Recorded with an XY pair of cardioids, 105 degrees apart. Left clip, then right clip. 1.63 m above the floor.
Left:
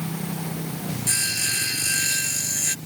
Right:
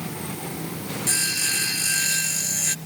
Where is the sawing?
5° right.